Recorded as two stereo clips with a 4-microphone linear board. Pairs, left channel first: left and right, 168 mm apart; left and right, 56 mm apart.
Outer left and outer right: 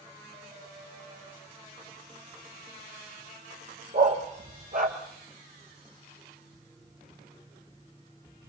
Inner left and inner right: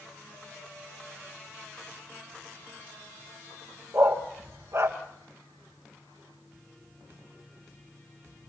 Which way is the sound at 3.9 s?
55° right (ahead or behind).